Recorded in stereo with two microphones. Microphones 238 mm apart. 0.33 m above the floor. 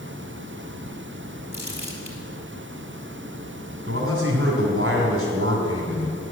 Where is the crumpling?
50° right (ahead or behind), 3 m.